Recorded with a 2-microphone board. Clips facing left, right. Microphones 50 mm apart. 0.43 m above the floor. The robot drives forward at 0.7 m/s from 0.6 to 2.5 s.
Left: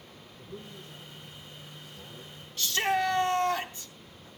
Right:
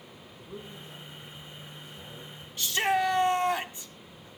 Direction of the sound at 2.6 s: 15° right (ahead or behind).